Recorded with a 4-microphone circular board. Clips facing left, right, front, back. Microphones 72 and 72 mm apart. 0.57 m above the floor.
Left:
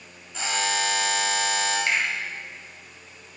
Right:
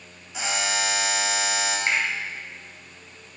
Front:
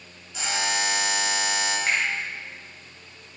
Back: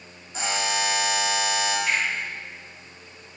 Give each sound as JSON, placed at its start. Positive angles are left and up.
{"t": 0.3, "sound": "a buzzer", "azimuth_deg": -160, "distance_m": 1.5}
{"t": 1.9, "sound": "a finger snap", "azimuth_deg": -25, "distance_m": 2.0}